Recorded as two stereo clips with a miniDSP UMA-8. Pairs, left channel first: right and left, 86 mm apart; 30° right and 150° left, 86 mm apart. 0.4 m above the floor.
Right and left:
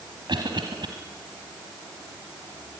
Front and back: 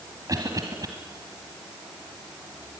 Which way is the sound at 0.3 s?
110° left.